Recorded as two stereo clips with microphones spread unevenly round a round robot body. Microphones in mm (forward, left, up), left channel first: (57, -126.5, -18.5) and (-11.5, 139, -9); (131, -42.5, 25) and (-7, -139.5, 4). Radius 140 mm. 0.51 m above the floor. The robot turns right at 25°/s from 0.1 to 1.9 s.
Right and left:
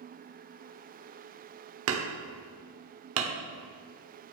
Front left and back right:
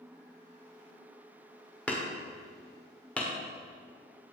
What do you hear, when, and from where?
1.9 s hammering: 125° left, 1.4 m